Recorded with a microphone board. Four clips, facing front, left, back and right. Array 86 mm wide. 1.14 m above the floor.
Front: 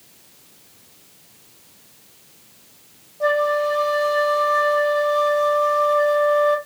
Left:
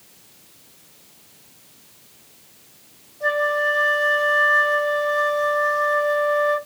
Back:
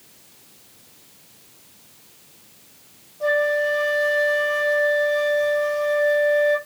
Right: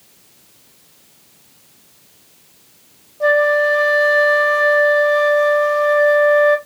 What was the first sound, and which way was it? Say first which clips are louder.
A flute: right 7 dB, front 2 dB; 65° right.